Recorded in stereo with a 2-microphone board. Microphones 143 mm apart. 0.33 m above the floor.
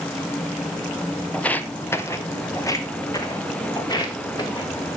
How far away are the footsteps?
About 0.8 m.